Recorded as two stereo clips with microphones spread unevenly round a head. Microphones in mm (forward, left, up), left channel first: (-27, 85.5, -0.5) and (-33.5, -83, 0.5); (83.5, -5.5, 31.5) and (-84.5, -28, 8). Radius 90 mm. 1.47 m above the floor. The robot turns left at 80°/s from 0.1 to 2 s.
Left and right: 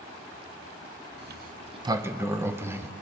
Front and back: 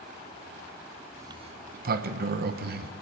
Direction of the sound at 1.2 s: 100° right.